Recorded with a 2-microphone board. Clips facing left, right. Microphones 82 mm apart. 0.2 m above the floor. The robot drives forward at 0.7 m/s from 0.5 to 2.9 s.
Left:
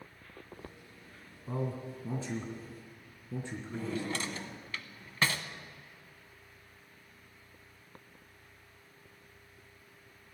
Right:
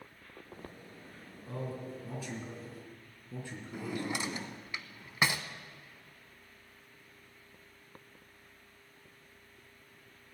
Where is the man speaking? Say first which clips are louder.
Left 3 dB; 25° left (ahead or behind), 2 m; by 4.1 s 15° left (ahead or behind), 3 m.